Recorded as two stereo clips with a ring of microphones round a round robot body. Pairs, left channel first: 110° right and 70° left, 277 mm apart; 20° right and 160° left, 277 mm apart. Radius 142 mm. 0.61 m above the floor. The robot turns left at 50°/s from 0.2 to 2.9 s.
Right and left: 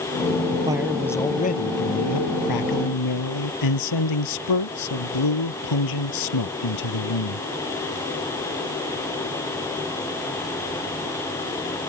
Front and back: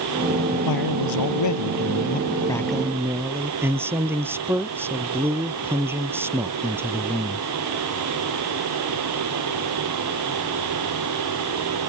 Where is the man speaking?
10° right; by 7.5 s 120° right.